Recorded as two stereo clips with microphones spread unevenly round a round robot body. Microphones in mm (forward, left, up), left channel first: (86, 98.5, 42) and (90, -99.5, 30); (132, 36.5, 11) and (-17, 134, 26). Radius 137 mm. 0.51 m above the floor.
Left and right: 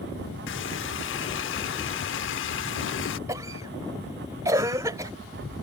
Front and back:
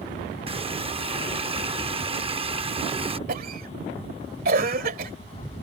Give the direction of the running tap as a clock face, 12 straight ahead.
9 o'clock.